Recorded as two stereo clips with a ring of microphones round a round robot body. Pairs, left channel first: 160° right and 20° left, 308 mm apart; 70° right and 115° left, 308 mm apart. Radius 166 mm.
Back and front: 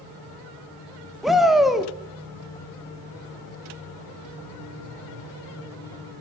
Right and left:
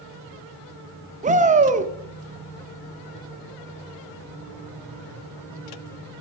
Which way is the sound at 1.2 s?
110° left.